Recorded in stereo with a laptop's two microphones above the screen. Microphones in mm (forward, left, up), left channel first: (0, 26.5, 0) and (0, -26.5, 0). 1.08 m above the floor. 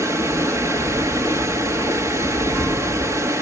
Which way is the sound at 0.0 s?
70° right (ahead or behind).